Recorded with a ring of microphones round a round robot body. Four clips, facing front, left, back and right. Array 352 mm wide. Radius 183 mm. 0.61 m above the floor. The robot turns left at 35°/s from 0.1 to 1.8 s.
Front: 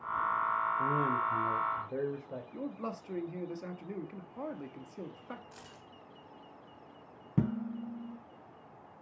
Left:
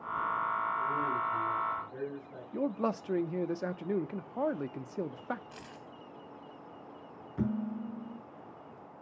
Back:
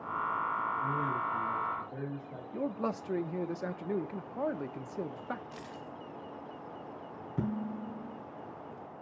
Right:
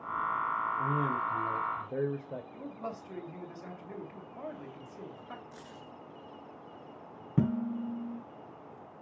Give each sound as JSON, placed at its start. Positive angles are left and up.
{"t": 0.8, "sound": "a man speaking", "azimuth_deg": -20, "distance_m": 2.5}
{"t": 2.5, "sound": "a man speaking", "azimuth_deg": 115, "distance_m": 0.9}
{"t": 5.5, "sound": "keys jangling", "azimuth_deg": 115, "distance_m": 2.5}
{"t": 7.4, "sound": "dishes clattering", "azimuth_deg": -50, "distance_m": 3.5}